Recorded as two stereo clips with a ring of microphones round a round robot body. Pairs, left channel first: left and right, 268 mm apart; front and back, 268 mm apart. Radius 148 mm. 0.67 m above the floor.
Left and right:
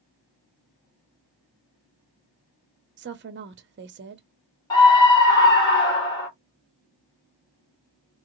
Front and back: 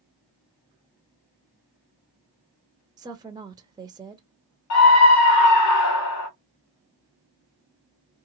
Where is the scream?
15° left, 1.4 m.